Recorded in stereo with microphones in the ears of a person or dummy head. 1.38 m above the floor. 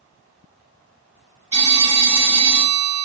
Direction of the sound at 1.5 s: 35° right (ahead or behind).